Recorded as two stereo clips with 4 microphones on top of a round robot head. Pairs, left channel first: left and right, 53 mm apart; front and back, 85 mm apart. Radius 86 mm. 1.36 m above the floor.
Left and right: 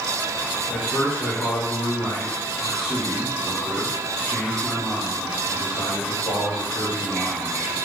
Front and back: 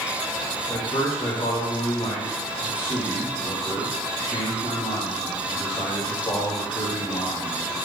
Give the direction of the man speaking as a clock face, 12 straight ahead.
11 o'clock.